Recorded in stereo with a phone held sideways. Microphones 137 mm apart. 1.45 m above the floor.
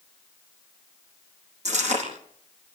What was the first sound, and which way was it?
Chewing, 60° right (ahead or behind).